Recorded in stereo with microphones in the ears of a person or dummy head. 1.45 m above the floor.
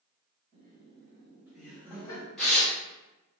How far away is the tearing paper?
About 0.9 m.